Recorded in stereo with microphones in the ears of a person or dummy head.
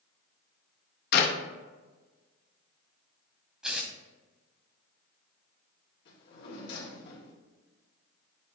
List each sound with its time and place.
1.1 s a clap: 60° left (ahead or behind), 0.6 m
3.6 s tearing paper: centre (ahead or behind), 0.7 m
6.0 s a drawer: 65° left (ahead or behind), 1.7 m